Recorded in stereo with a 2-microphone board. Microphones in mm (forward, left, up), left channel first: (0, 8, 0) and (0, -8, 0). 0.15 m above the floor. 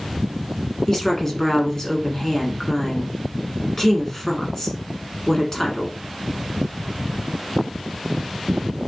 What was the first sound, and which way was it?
A woman speaking, 25° left (ahead or behind).